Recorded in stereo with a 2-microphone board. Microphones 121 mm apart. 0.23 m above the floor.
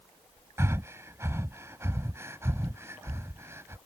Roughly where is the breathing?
Right.